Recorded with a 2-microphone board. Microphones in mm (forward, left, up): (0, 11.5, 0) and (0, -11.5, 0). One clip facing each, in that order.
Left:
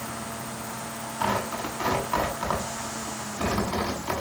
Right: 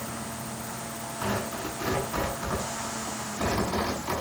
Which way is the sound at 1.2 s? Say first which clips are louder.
Left 4 dB; 60° left (ahead or behind).